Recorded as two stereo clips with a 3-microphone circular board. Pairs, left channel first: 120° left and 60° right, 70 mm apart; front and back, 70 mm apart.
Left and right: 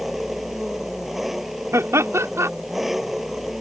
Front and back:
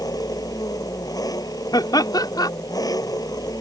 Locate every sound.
0.0 s an engine running: 25° left
1.7 s laughter: 15° right